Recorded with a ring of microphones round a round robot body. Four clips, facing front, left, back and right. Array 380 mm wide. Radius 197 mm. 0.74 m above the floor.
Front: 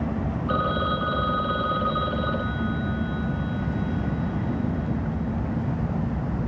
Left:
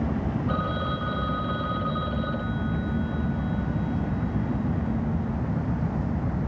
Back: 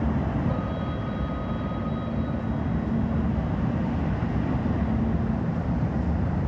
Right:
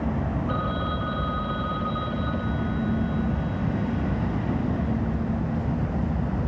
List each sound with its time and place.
0.5 s a phone ringing: 5° left